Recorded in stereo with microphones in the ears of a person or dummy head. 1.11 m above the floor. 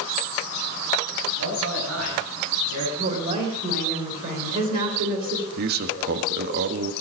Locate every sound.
1.4 s a man speaking: 85° right, 8.5 m; by 2.9 s 80° right, 9.5 m
3.0 s a woman speaking: 45° right (ahead or behind), 3.5 m
5.6 s a man speaking: 55° right (ahead or behind), 1.4 m